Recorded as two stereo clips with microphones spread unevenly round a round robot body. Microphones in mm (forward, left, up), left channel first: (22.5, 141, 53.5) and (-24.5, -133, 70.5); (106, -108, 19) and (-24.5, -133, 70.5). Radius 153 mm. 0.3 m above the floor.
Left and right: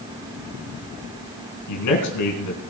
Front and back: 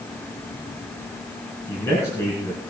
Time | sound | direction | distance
1.7 | a man speaking | 80° left | 3.5 m